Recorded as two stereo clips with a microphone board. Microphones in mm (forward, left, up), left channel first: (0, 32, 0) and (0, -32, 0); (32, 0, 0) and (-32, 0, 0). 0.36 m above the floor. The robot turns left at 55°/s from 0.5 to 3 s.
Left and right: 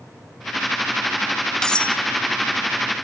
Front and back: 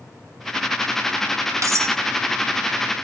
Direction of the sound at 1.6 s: 170° left.